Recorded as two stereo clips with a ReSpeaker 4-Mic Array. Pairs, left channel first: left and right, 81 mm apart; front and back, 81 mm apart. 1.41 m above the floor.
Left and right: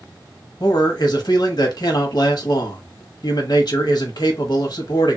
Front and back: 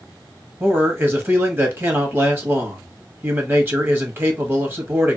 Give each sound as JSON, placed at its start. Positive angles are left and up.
{"t": 0.6, "sound": "a man speaking", "azimuth_deg": 120, "distance_m": 1.0}